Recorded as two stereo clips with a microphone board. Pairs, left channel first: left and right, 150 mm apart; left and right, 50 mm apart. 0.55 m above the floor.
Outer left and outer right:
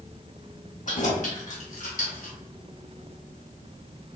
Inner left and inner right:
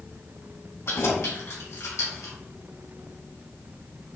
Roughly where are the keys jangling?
Left.